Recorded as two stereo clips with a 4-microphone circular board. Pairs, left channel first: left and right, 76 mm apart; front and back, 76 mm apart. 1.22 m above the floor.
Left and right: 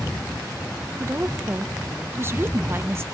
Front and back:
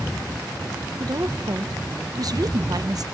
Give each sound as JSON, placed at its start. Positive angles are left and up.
{"t": 1.0, "sound": "a woman speaking", "azimuth_deg": -150, "distance_m": 0.7}